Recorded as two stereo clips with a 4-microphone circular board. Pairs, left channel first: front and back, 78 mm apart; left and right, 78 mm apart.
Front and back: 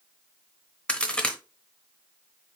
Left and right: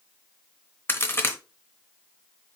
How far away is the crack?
About 0.8 m.